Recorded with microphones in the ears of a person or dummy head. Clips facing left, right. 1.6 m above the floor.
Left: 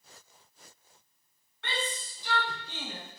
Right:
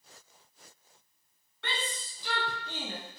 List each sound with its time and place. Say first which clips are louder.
1.6 s a shout: left 2 dB; 80° right, 2.0 m; by 3.0 s 20° right (ahead or behind), 0.9 m